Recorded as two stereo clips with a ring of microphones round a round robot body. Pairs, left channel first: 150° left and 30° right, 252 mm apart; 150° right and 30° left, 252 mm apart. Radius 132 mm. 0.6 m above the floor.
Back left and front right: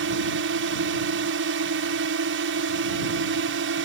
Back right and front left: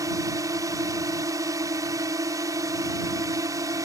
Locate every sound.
0.0 s a drone: 45° right